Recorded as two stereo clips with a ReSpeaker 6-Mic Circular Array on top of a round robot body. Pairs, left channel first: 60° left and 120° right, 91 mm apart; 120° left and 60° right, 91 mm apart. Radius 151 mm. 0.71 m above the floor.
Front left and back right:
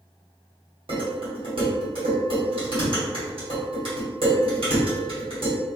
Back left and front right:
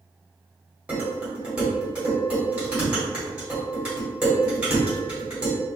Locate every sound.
0.9 s dishes clattering: 140° right, 1.8 m